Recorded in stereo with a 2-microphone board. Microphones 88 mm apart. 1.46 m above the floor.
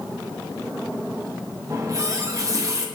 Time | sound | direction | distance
1.7 | a running tap | 35° right (ahead or behind) | 1.0 m